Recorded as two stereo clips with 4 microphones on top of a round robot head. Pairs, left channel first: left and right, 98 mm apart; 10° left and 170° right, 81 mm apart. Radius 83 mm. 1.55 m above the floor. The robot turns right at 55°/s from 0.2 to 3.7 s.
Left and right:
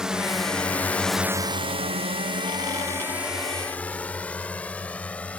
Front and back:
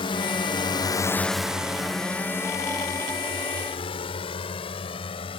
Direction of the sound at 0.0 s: 5° right.